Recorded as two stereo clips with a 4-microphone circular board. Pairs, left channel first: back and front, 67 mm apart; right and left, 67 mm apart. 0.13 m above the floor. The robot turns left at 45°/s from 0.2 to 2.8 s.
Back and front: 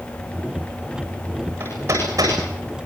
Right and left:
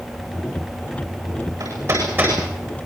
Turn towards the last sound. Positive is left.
turn(degrees=5)